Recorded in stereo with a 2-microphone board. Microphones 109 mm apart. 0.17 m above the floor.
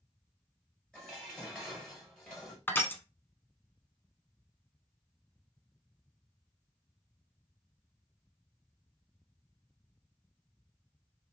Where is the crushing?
20° left (ahead or behind), 0.7 m.